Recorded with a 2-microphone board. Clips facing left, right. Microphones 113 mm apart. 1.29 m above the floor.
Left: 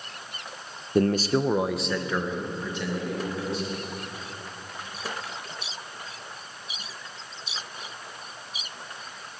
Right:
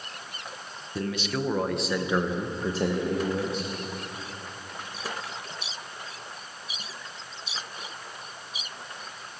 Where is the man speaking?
55° left (ahead or behind), 0.8 m; by 3.7 s 45° right (ahead or behind), 1.8 m.